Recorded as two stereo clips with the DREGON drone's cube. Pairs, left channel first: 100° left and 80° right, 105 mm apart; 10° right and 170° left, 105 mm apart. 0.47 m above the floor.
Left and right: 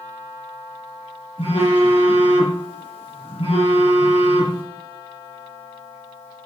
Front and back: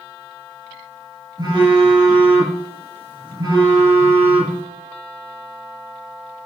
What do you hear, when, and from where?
1.4 s a phone buzzing: 120° left, 5.5 m